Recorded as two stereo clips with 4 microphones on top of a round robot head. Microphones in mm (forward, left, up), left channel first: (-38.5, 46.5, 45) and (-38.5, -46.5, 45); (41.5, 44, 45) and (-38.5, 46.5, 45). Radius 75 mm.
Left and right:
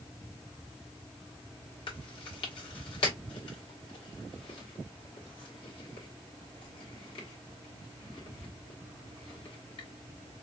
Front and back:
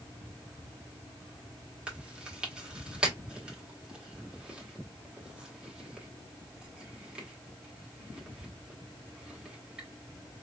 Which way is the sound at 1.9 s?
100° left.